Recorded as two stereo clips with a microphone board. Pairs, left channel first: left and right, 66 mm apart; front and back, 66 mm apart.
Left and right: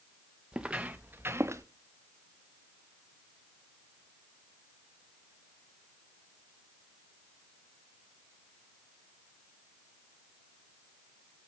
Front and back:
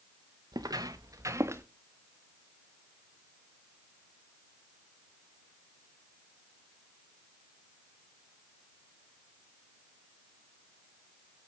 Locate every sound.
0.5 s footsteps: 170° right, 1.2 m; by 1.6 s 130° right, 1.3 m